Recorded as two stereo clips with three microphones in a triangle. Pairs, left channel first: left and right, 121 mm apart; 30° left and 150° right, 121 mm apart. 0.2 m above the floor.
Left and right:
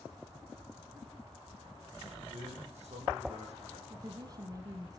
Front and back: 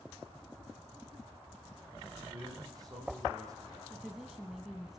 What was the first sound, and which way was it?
A man speaking, 95° right.